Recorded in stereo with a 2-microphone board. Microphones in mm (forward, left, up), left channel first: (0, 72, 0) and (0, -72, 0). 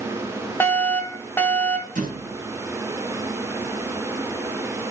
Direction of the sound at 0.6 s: 15° left (ahead or behind).